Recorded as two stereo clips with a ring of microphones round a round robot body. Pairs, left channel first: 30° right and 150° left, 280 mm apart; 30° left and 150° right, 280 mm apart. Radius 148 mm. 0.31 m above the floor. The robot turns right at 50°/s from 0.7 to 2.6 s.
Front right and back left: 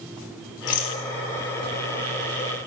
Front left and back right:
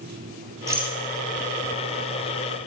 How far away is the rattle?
About 1.7 m.